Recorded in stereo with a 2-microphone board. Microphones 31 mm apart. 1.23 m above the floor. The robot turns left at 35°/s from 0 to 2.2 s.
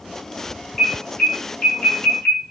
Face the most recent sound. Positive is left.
turn(degrees=65)  # may be behind; listen again after turning